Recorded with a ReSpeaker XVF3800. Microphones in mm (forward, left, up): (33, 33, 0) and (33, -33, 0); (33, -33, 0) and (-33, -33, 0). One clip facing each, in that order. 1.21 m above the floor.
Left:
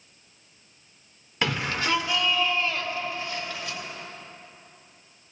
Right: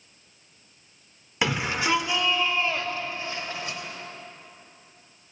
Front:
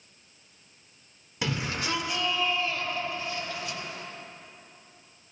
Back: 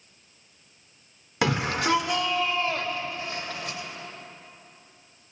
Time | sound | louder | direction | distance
1.4 | a shout | right 1 dB, back 6 dB | 170° right | 1.9 m